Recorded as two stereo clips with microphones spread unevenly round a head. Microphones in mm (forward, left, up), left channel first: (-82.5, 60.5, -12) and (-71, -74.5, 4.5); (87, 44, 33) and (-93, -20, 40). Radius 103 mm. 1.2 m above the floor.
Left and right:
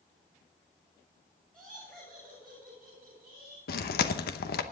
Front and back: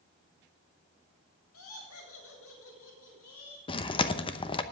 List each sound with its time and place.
1.5 s laughter: 5° left, 7 m; by 3.6 s straight ahead, 8 m
3.7 s chewing: 85° left, 0.8 m